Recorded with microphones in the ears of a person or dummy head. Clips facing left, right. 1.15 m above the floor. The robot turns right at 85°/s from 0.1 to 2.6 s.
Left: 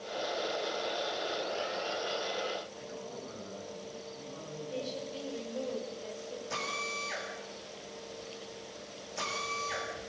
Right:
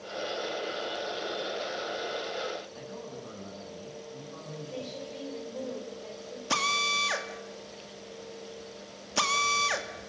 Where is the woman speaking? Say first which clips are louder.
Left 1 dB; 10° left (ahead or behind), 5 m.